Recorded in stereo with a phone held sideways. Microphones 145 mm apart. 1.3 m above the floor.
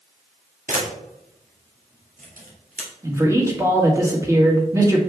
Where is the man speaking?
20° right (ahead or behind), 1.8 m.